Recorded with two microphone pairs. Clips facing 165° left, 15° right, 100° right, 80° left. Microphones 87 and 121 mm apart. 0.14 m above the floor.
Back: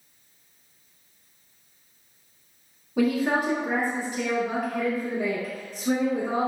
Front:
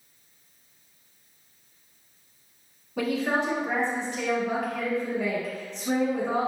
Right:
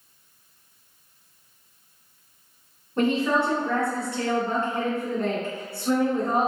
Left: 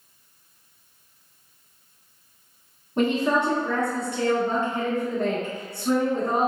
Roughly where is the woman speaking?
Left.